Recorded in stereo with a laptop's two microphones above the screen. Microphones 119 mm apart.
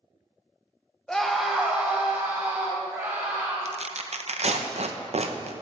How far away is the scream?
About 0.9 m.